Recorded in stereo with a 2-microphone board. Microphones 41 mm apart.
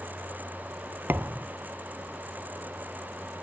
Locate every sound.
1.1 s a thud: 65° right (ahead or behind)